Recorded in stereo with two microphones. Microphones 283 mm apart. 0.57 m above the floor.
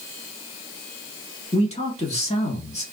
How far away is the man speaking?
About 1.3 m.